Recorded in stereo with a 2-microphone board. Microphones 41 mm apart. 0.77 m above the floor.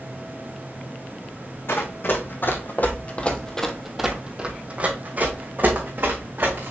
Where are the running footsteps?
65° left (ahead or behind), 1.9 m; by 6.7 s 55° right (ahead or behind), 3 m.